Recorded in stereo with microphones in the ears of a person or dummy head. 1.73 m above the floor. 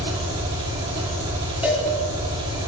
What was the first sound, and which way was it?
An engine running, 25° right (ahead or behind).